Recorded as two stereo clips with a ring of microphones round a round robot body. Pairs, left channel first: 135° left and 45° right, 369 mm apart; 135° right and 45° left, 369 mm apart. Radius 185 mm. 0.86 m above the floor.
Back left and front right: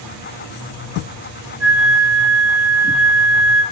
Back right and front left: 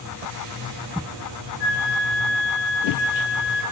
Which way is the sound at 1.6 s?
100° right.